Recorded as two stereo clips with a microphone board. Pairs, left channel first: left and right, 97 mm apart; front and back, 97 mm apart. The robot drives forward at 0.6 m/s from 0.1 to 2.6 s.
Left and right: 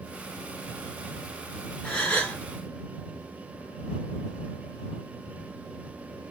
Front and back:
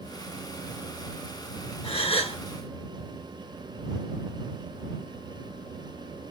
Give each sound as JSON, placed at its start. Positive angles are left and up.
{"t": 1.8, "sound": "a gasp", "azimuth_deg": 10, "distance_m": 1.5}